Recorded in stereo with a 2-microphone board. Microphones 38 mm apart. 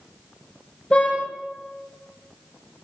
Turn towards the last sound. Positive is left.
turn(degrees=25)  # may be behind; listen again after turning